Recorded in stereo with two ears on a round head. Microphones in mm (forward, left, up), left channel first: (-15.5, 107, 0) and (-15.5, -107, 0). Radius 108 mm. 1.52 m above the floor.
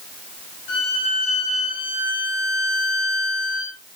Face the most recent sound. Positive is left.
turn(degrees=50)  # may be behind; listen again after turning